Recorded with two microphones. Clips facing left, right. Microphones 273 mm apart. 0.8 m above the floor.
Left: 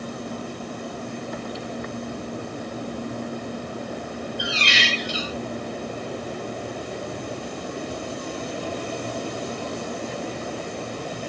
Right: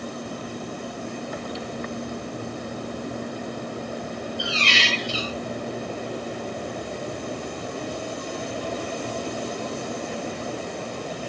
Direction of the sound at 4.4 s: 20° left (ahead or behind).